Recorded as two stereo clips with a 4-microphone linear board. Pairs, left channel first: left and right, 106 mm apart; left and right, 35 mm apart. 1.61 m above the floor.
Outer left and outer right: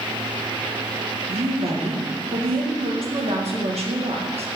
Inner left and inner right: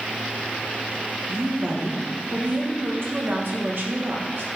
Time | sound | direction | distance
1.3 | a woman speaking | 75° right (ahead or behind) | 1.9 m